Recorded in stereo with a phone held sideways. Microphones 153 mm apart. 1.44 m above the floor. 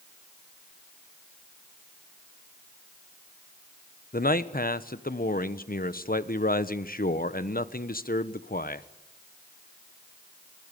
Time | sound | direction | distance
4.1 | a man speaking | 75° left (ahead or behind) | 1.1 m